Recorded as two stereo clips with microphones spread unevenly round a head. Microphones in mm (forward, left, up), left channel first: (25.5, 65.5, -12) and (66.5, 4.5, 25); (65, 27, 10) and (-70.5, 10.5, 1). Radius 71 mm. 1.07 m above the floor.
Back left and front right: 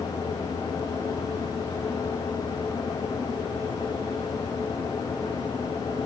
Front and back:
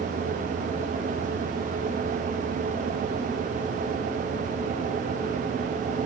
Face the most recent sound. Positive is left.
No sound to turn to.